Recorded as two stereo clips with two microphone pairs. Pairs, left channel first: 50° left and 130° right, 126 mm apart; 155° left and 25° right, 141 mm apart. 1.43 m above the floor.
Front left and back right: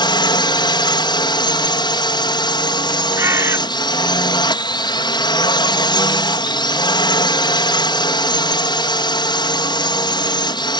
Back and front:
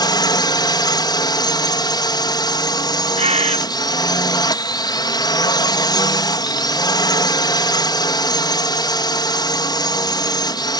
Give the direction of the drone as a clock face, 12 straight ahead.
9 o'clock.